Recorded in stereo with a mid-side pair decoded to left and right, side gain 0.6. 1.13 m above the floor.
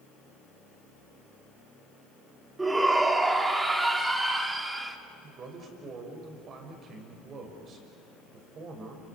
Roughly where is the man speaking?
Ahead right.